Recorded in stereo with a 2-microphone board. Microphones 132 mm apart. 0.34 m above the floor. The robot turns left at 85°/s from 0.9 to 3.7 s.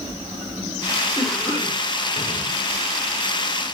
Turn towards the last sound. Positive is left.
turn(degrees=-25)